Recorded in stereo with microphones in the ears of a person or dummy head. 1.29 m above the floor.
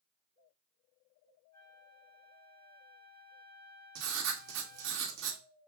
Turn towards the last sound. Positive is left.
turn(degrees=-70)  # may be behind; listen again after turning